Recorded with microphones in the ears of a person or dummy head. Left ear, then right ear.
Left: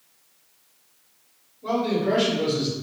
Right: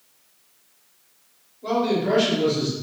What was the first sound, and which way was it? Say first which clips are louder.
A man speaking: right 2 dB; 15° right (ahead or behind).